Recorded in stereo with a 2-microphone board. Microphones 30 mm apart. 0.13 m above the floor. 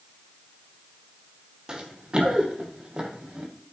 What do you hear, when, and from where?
1.7 s running footsteps: 20° right (ahead or behind), 1.8 m; by 3.5 s 25° right (ahead or behind), 2.5 m